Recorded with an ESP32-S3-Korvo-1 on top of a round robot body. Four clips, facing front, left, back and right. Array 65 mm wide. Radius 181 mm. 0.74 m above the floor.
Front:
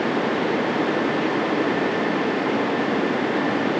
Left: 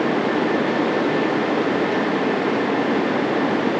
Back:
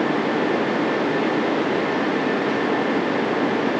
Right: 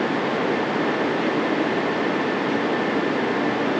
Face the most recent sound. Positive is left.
No sound to turn to.